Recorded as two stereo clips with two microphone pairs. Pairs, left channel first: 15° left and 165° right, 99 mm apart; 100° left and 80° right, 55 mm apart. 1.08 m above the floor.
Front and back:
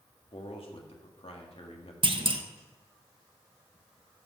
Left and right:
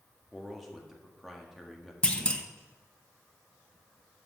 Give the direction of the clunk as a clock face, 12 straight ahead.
6 o'clock.